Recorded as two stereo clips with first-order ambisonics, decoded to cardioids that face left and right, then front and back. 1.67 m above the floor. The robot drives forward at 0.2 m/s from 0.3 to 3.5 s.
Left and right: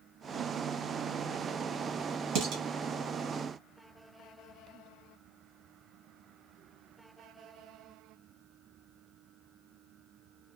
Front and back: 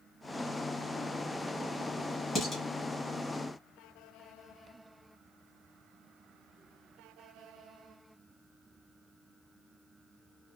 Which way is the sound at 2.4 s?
80° right.